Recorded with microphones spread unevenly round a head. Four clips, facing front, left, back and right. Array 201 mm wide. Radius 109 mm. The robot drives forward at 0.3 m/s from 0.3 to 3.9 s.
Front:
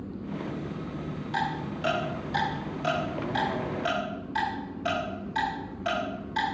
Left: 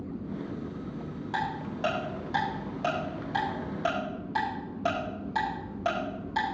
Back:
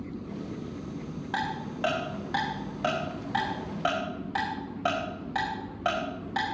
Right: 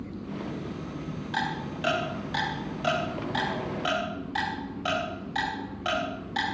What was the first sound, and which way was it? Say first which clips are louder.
Ticking: right 1 dB, front 2 dB; 155° left.